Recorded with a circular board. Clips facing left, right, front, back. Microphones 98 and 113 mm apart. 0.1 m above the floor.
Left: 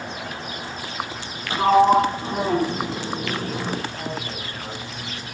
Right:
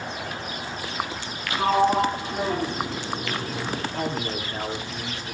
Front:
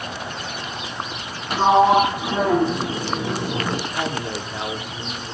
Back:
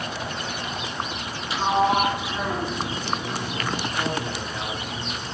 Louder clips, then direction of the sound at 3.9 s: Right 3 dB, front 1 dB; 35° right.